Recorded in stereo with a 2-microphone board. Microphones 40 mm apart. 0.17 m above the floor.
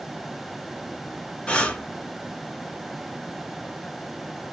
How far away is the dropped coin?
I don't hear a dropped coin.